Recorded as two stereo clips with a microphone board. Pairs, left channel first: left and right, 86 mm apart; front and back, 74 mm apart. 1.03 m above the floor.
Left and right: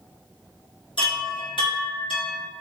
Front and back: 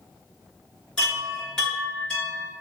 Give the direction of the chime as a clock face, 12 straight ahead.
9 o'clock.